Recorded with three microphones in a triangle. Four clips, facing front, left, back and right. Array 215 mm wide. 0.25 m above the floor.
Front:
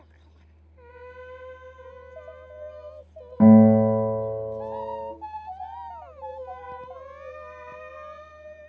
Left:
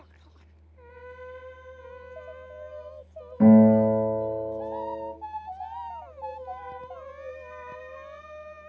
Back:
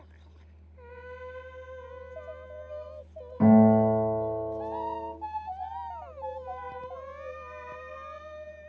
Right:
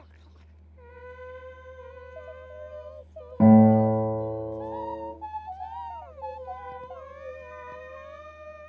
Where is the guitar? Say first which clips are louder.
Left 1 dB, front 5 dB; 50° right, 1.4 m.